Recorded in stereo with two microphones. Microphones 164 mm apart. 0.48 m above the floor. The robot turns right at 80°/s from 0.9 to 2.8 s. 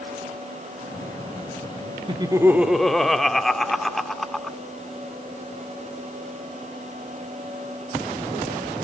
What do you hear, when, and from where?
2.1 s laughter: 55° right, 1.2 m; by 4.6 s 5° left, 1.2 m